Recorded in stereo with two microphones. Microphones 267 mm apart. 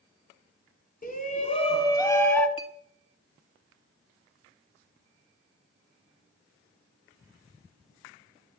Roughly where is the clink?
Left.